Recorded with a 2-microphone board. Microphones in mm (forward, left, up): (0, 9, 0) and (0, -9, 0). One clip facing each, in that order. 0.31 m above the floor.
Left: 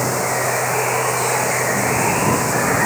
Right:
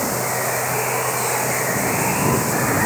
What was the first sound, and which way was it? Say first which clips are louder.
Running water: left 3 dB; 15° left (ahead or behind).